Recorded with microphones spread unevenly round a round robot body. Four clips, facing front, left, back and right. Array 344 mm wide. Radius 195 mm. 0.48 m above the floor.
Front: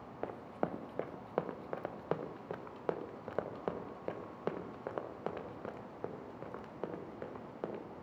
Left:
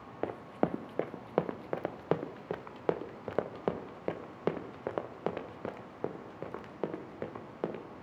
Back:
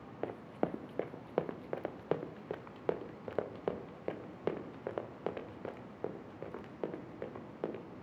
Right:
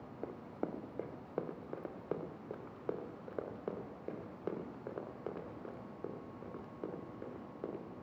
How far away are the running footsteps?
About 1.9 m.